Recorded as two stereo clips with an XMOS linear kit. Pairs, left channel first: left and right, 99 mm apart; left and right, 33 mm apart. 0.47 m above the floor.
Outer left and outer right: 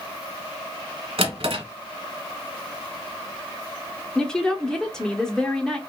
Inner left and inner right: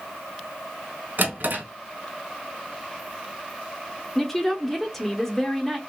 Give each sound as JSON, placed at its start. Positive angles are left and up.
{"t": 1.2, "sound": "a drawer", "side_deg": -70, "distance_m": 1.3}
{"t": 4.2, "sound": "a woman speaking", "side_deg": 5, "distance_m": 0.7}